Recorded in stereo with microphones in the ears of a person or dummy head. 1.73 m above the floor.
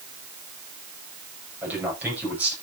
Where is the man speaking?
10° right (ahead or behind), 10 m.